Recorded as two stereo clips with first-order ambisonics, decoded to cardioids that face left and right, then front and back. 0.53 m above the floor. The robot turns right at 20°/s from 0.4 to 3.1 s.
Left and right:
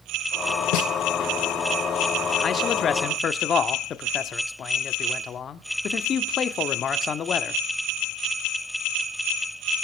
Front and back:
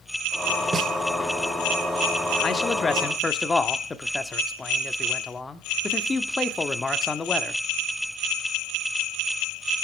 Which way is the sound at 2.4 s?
50° left.